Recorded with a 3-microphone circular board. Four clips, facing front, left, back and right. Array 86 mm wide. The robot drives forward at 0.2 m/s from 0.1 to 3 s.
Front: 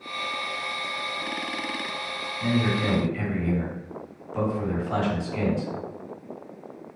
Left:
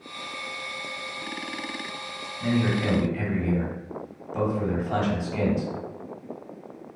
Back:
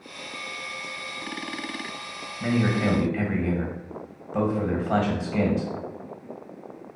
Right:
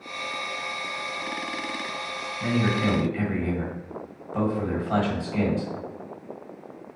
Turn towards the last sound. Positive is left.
turn(degrees=-170)